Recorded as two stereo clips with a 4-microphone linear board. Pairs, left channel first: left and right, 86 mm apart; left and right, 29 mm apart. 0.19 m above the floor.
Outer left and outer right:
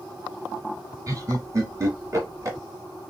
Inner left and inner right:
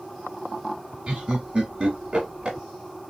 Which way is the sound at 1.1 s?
40° right (ahead or behind).